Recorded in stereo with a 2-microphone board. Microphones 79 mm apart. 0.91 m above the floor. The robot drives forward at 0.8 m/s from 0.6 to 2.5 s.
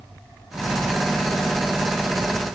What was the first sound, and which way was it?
Only background noise.